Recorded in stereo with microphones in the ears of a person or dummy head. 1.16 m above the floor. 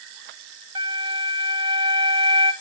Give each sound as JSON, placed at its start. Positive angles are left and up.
{"t": 0.8, "sound": "a flute", "side_deg": -20, "distance_m": 0.5}